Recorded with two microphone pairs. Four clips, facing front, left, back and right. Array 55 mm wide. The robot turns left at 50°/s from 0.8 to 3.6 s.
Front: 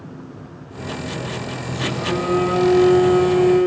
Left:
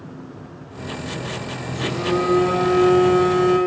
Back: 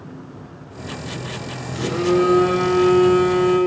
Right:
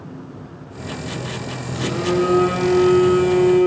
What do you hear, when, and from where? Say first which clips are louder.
1.7 s a phone buzzing: right 2 dB, back 6 dB; 135° right, 3.5 m; by 3.6 s 130° left, 3.5 m